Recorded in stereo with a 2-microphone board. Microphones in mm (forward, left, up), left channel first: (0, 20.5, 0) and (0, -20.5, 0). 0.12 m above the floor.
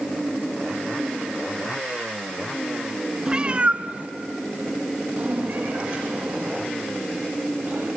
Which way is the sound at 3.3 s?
15° right (ahead or behind).